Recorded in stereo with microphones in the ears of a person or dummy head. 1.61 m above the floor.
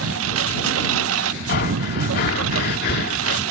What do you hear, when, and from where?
0.0 s a lawn mower: 85° right
1.5 s breathing: 50° left (ahead or behind)